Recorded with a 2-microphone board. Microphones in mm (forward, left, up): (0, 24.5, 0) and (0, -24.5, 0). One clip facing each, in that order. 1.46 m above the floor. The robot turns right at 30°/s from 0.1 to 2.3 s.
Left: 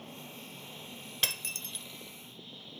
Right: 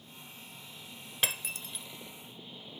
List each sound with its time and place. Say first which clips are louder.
0.0 s an engine running: left 4 dB; 125° left; by 2.8 s 170° right
1.2 s breaking glass: right 1 dB; 15° right (ahead or behind); by 1.9 s 5° right (ahead or behind)